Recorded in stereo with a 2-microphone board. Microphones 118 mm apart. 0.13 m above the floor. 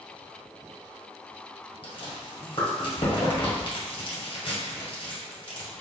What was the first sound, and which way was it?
Chewing, 50° left (ahead or behind).